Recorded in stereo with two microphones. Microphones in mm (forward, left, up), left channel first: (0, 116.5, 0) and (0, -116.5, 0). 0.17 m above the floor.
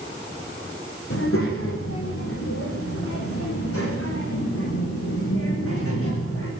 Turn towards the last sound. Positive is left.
turn(degrees=75)  # may be behind; listen again after turning